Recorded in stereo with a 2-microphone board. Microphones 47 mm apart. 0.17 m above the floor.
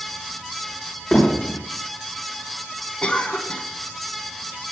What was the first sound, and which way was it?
Hammering, 20° left (ahead or behind).